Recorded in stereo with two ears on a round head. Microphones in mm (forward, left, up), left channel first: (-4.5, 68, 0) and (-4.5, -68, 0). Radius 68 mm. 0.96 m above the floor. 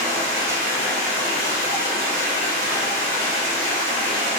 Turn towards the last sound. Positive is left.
turn(degrees=-60)  # may be behind; listen again after turning